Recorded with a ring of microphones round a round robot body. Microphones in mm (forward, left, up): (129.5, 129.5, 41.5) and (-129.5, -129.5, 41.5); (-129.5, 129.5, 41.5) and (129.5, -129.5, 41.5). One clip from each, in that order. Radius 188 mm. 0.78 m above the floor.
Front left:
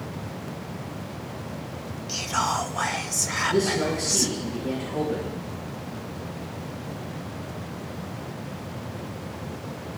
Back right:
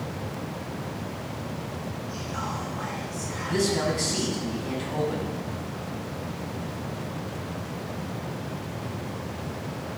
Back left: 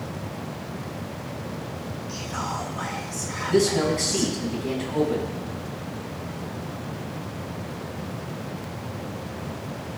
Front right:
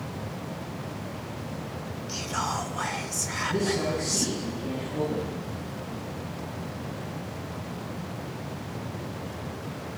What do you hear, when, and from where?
2.1 s whispering: 25° left, 0.7 m
3.5 s a man speaking: straight behind, 7 m